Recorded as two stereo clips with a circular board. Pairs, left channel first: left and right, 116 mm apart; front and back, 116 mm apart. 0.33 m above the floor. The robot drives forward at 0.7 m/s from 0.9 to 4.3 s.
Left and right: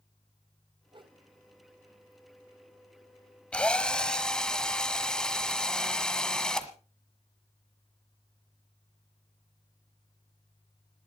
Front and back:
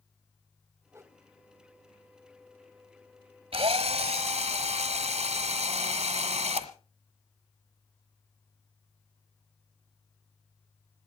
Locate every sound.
0.9 s a whoosh: 115° right, 1.0 m; by 1.2 s 125° right, 1.1 m
3.5 s a drill: 170° left, 1.0 m; by 6.7 s 175° left, 1.5 m